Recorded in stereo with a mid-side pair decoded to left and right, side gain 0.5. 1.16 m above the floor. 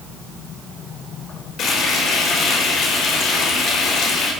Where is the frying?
60° left, 5.5 m.